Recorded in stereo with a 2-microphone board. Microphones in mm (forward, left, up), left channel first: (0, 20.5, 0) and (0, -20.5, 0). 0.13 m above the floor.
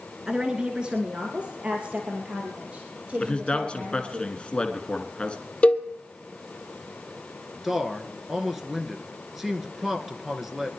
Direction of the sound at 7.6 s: 5° right (ahead or behind).